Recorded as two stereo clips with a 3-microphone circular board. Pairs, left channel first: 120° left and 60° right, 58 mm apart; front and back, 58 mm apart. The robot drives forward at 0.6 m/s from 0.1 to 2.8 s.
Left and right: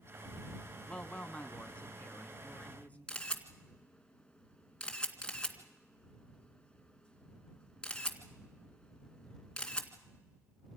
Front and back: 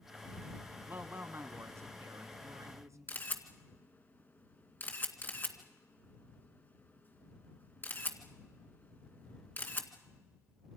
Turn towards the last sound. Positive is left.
turn(degrees=45)